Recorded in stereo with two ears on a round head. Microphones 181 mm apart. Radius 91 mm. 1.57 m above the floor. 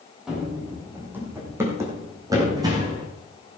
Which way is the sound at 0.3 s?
5° right (ahead or behind).